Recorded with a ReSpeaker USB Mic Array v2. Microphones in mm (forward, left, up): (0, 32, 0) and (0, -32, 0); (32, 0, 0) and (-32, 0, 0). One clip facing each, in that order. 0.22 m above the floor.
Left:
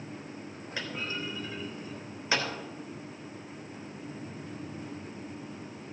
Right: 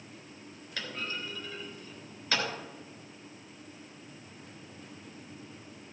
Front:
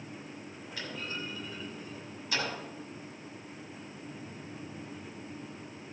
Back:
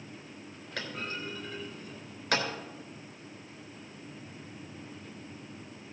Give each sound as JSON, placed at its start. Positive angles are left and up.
{"t": 0.8, "sound": "a clunk", "azimuth_deg": 160, "distance_m": 3.5}